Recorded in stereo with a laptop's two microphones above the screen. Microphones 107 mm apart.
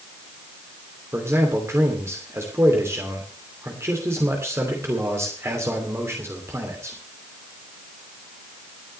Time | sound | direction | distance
1.1 | a man speaking | 25° right (ahead or behind) | 2.5 m